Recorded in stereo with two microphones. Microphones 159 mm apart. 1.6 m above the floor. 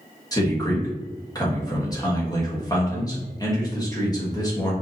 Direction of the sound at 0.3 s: 25° left (ahead or behind).